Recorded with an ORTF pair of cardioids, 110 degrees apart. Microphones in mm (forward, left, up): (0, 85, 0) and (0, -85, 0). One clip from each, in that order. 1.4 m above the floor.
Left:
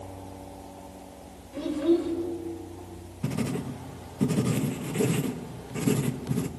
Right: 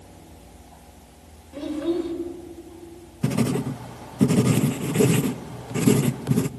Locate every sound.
1.5 s a child speaking: 10° right, 4 m
3.2 s writing: 30° right, 0.6 m